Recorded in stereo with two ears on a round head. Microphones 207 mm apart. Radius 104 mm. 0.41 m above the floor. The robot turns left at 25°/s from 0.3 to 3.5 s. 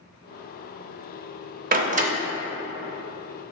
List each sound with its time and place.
1.7 s a door slam: 40° right (ahead or behind), 0.8 m; by 2.1 s 30° right (ahead or behind), 0.8 m